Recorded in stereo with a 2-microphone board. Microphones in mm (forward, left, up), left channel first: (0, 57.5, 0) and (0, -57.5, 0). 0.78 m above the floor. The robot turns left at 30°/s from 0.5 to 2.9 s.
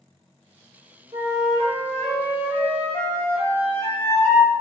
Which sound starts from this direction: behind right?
A flute, at 1.1 s.